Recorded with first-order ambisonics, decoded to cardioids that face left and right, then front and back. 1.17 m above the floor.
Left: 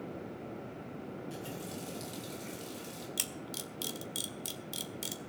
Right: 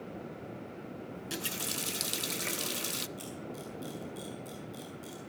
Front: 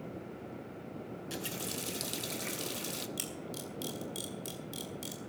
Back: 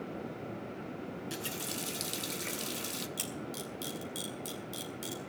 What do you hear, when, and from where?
1.1 s a running tap: 95° right, 0.6 m
3.2 s a camera shutter: 90° left, 1.7 m